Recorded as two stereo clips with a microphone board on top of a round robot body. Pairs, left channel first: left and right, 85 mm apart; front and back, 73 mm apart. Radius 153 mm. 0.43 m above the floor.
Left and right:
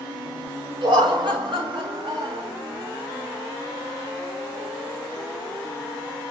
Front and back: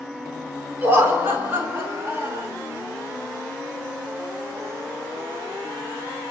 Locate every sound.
0.8 s laughter: 115° right, 5 m; by 2.5 s 120° right, 6 m